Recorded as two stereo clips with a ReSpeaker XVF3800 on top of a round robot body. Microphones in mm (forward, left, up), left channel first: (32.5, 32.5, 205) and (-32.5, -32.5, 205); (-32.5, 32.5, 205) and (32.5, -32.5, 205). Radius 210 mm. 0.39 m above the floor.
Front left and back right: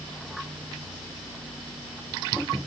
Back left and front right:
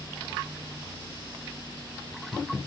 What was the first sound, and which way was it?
Only background noise.